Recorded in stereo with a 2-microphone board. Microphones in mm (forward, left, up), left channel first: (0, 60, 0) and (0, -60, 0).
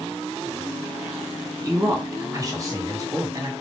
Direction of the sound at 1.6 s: 30° right (ahead or behind).